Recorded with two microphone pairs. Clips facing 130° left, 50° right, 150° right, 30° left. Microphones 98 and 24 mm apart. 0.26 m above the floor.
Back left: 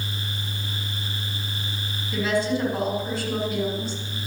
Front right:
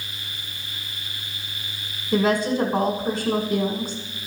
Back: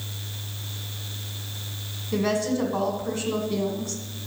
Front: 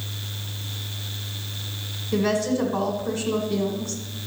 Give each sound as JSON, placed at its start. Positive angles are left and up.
{"t": 2.1, "sound": "a woman speaking", "azimuth_deg": -65, "distance_m": 1.8}